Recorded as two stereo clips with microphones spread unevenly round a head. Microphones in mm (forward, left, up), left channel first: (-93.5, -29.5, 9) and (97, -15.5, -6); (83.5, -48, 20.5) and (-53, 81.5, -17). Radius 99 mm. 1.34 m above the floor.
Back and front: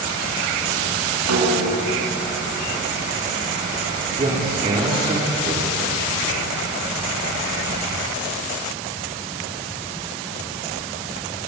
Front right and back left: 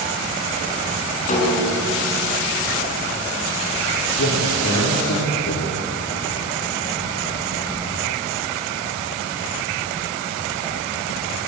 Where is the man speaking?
60° right, 4.5 m.